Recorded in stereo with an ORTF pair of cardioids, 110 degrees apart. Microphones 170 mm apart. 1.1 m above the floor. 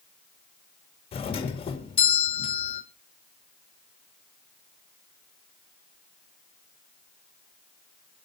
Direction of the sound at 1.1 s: 35° left.